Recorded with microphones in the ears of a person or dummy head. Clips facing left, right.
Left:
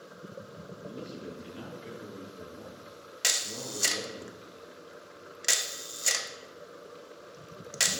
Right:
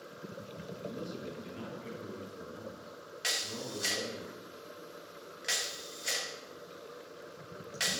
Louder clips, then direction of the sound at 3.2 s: Left 1 dB; 55° left (ahead or behind).